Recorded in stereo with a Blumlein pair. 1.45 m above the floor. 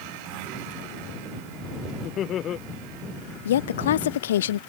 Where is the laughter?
30° left.